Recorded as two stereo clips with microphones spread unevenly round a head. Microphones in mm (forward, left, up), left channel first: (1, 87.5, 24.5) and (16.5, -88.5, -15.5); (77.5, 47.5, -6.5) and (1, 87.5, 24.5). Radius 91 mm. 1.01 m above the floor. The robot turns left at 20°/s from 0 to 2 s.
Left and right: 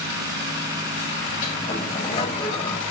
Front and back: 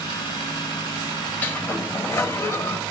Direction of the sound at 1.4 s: 50° left.